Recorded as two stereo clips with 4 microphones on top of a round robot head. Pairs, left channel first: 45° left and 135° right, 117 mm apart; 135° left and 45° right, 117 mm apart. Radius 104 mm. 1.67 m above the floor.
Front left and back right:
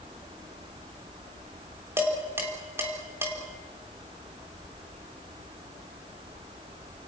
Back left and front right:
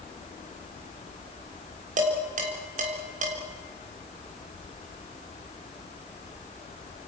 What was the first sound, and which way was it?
Dishes clattering, 65° right.